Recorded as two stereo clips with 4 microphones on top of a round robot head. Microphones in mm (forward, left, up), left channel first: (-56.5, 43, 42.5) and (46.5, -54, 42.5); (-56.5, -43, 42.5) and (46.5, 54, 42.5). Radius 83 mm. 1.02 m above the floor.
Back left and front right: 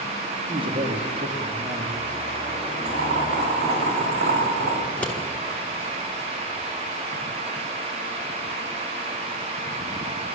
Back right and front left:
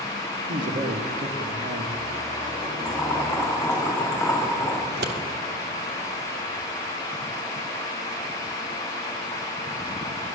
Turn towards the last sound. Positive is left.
turn(degrees=55)